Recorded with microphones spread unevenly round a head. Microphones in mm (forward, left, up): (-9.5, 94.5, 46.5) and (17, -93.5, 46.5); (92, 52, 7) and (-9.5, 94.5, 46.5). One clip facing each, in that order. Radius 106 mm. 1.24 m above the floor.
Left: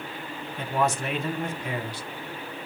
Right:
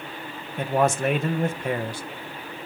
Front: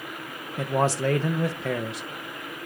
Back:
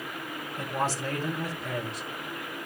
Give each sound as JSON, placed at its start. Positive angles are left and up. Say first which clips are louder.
{"t": 0.6, "sound": "a man speaking", "louder": "right 5 dB, front 7 dB", "azimuth_deg": -35, "distance_m": 0.9}